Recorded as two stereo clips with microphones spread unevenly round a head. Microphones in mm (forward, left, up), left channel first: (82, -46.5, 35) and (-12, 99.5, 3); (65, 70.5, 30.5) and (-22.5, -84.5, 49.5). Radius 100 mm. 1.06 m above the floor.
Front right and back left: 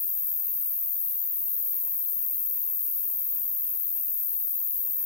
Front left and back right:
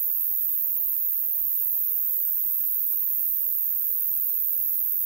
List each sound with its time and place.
0.0 s an insect: 130° right, 2.5 m